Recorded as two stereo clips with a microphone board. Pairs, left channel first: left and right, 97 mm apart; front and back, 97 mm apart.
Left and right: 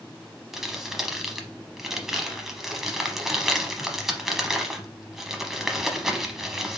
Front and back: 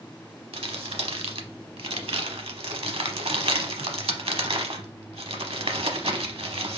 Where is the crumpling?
175° right, 0.7 m.